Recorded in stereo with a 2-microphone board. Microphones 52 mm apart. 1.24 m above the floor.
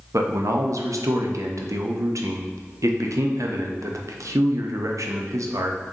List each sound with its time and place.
0.1 s a man speaking: 75° right (ahead or behind), 0.5 m